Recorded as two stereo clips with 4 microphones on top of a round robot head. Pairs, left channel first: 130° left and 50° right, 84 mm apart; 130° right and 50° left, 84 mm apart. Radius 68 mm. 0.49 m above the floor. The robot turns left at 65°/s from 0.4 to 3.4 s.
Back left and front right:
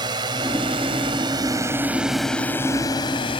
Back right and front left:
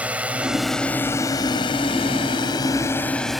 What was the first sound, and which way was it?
A drone, 25° right.